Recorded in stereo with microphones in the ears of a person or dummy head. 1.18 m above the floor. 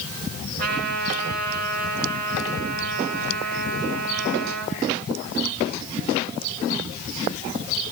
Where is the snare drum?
No snare drum in this recording.